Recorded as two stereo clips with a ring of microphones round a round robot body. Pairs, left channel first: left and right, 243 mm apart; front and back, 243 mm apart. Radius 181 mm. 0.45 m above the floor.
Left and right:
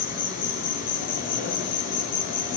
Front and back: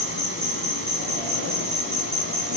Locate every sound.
0.0 s an insect: 150° left, 6.5 m